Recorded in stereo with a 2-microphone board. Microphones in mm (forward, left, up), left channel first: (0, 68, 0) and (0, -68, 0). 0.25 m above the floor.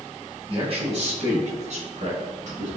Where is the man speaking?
40° right (ahead or behind), 1.6 m; by 2.7 s 65° right (ahead or behind), 4 m.